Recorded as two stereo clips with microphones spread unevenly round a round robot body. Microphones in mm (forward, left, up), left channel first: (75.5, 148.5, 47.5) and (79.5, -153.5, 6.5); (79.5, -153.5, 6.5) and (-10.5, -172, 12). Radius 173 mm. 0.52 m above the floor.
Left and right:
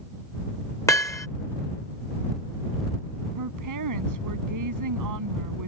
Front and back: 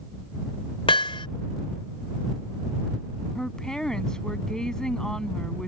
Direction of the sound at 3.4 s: 70° right.